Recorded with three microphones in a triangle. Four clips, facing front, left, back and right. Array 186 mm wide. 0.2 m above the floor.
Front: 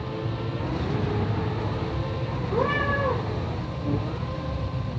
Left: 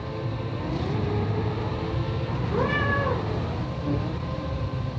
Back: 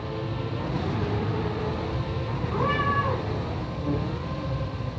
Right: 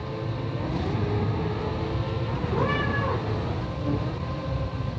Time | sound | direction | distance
2.5 | a cat meowing | 10° right | 7.5 m